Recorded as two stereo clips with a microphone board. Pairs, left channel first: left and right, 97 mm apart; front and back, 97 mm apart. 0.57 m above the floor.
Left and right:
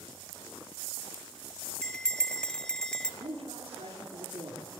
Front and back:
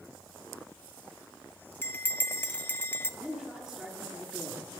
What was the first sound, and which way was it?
A bell, 20° left.